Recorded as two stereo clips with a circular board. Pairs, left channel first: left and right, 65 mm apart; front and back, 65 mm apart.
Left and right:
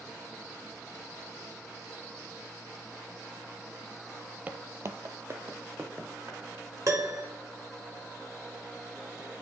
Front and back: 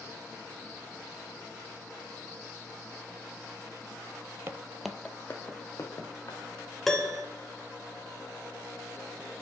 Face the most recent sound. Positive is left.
turn(degrees=-80)